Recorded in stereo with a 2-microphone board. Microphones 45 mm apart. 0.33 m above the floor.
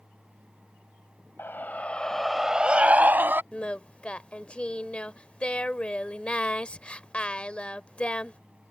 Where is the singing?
25° left (ahead or behind).